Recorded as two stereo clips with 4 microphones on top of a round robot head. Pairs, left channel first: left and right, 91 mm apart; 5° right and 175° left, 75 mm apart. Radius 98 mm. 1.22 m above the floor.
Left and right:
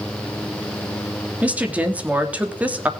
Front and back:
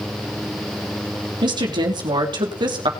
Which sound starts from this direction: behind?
A woman speaking, at 1.4 s.